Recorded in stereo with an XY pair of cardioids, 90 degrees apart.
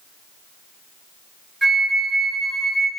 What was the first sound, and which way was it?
A flute, 20° right.